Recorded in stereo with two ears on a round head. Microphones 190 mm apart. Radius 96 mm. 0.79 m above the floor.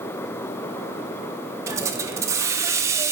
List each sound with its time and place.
1.7 s a hiss: 15° right (ahead or behind), 0.6 m